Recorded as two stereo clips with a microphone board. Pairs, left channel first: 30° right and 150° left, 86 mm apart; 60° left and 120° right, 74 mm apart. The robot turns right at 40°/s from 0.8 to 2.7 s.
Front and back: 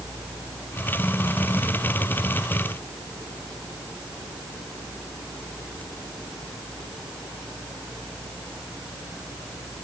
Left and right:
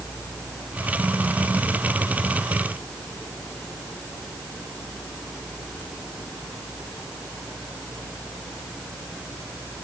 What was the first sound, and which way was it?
Only background noise.